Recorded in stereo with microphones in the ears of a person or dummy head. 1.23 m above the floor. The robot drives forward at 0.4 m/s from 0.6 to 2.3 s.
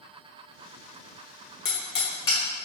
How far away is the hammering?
About 1.1 m.